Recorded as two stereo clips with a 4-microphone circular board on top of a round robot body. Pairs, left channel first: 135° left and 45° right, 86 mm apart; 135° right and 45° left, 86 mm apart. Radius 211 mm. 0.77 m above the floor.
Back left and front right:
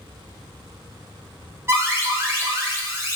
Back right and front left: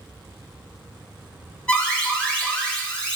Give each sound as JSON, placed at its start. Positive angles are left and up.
{"t": 1.7, "sound": "an alarm", "azimuth_deg": -65, "distance_m": 1.1}